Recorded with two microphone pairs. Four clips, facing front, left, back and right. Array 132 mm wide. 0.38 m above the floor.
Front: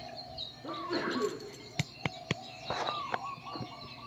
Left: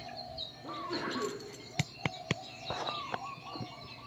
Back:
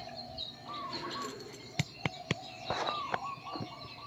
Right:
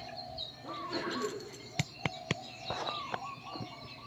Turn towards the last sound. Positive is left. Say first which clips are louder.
# even, front 6 dB
turn(degrees=10)